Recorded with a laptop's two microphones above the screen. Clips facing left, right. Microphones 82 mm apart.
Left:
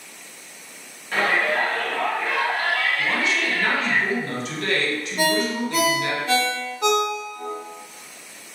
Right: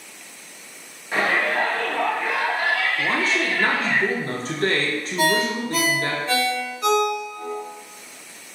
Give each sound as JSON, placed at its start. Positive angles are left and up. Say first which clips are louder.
{"t": 1.1, "sound": "a shout", "louder": "even", "side_deg": -10, "distance_m": 0.8}
{"t": 3.0, "sound": "a man speaking", "louder": "right 1 dB", "side_deg": -40, "distance_m": 0.5}
{"t": 5.2, "sound": "a ringtone", "louder": "right 1 dB", "side_deg": 70, "distance_m": 1.3}